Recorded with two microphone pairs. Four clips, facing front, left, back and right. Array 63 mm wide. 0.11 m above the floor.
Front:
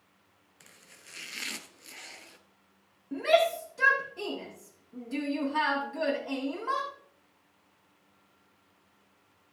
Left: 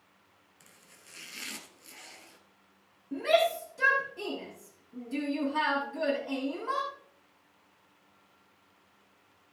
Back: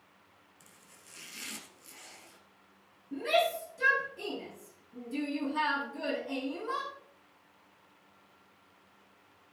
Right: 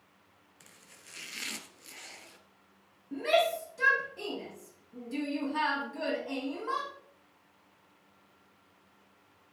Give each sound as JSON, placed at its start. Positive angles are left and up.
{"t": 0.6, "sound": "chopping", "azimuth_deg": -15, "distance_m": 1.2}
{"t": 3.1, "sound": "a shout", "azimuth_deg": 0, "distance_m": 6.5}